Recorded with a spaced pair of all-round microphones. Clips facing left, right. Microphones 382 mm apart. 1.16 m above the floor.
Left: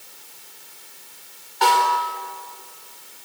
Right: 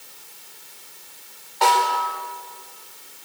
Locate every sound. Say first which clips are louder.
1.6 s a snare drum: even; 25° left (ahead or behind), 4.5 m